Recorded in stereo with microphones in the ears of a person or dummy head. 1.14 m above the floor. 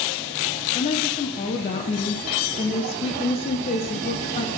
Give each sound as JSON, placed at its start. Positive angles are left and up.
{"t": 0.8, "sound": "a woman speaking", "side_deg": 25, "distance_m": 0.6}